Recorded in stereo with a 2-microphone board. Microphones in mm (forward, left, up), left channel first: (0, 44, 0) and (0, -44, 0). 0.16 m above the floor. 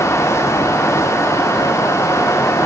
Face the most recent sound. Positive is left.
No sound to turn to.